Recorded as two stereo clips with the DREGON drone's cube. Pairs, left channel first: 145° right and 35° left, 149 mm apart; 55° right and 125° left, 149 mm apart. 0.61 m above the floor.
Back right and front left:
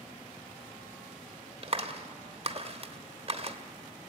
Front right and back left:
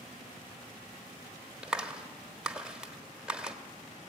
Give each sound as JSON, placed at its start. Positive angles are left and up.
{"t": 1.6, "sound": "a clap", "azimuth_deg": 45, "distance_m": 1.2}